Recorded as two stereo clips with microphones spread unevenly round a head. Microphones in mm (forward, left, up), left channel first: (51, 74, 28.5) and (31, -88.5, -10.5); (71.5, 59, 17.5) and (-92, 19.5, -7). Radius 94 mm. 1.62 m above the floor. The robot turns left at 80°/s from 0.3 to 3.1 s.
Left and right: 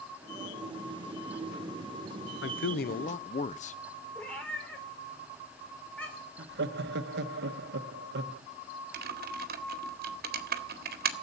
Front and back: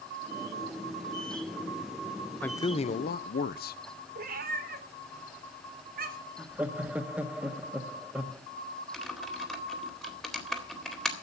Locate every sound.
2.4 s a man speaking: 95° left, 0.9 m; by 3.8 s 40° left, 0.9 m
4.2 s a cat meowing: 160° left, 2.5 m
6.4 s laughter: 80° right, 1.4 m
8.9 s typing on a keyboard: 70° right, 2.0 m